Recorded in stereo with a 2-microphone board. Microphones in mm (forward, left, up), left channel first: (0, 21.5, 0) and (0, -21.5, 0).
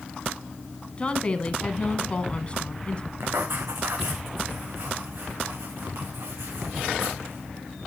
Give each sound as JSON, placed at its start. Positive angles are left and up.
{"t": 1.0, "sound": "a woman speaking", "side_deg": 25, "distance_m": 1.3}
{"t": 3.2, "sound": "writing", "side_deg": -65, "distance_m": 3.0}